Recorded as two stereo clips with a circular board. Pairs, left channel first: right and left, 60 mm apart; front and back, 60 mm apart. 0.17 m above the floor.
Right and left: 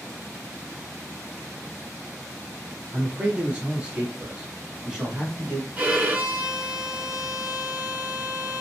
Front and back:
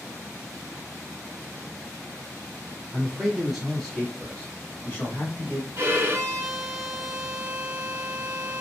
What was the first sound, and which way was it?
A man speaking, 120° left.